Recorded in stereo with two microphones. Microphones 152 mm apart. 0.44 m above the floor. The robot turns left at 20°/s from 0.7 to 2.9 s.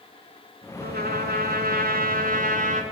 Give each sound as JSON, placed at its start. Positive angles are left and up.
{"t": 0.8, "sound": "a trumpet", "azimuth_deg": -85, "distance_m": 6.0}